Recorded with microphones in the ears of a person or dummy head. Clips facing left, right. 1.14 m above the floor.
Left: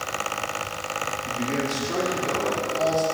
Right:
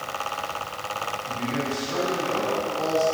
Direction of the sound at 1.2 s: 55° left (ahead or behind).